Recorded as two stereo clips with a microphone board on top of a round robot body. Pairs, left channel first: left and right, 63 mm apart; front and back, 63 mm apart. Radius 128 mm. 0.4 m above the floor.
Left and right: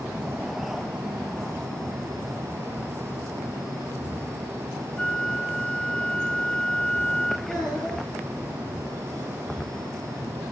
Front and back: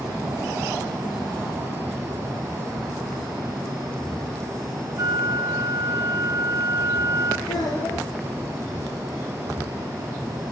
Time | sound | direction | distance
5.0 | a flute | 165° left | 2.5 m
7.5 | a child speaking | 10° left | 9.5 m